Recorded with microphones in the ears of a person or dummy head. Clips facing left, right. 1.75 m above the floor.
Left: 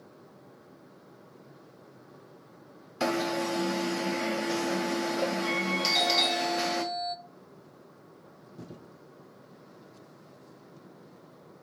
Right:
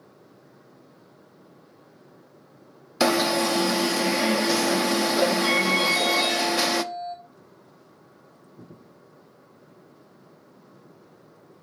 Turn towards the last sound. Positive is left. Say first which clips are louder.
# right 4 dB
turn(degrees=35)  # may be behind; listen again after turning